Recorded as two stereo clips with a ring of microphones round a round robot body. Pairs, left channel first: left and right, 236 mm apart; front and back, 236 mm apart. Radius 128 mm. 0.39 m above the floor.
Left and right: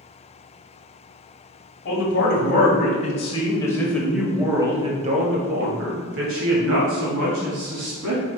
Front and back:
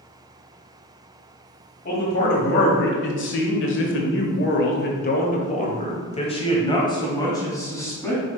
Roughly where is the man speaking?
Ahead left.